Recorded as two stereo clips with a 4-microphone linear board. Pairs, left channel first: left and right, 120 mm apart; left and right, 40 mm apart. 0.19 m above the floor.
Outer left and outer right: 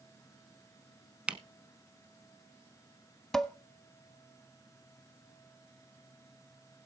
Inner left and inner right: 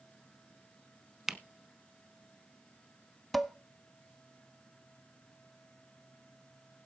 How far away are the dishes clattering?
About 0.7 m.